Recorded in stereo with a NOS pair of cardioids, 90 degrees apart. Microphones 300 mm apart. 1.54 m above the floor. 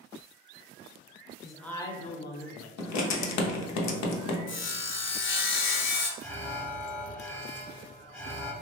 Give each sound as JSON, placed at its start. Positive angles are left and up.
{"t": 1.4, "sound": "a man speaking", "azimuth_deg": 0, "distance_m": 0.8}
{"t": 2.8, "sound": "writing", "azimuth_deg": 65, "distance_m": 0.6}
{"t": 4.5, "sound": "sawing", "azimuth_deg": 45, "distance_m": 0.6}
{"t": 6.2, "sound": "an alarm", "azimuth_deg": 5, "distance_m": 0.8}